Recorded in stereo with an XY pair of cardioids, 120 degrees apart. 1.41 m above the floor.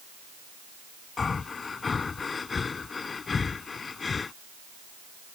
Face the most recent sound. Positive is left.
turn(degrees=30)